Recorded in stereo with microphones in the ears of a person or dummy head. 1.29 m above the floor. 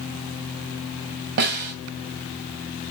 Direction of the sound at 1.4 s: 50° right (ahead or behind).